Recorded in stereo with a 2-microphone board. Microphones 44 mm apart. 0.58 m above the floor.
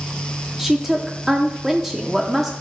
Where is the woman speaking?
10° right (ahead or behind), 0.8 m.